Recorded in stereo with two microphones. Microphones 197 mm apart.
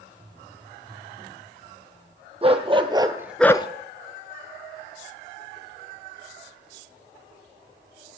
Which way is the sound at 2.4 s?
30° right (ahead or behind).